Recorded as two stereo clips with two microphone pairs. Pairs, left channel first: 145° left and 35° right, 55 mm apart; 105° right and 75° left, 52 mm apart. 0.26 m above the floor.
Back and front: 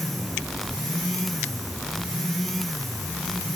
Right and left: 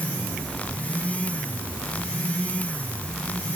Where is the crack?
No crack in this recording.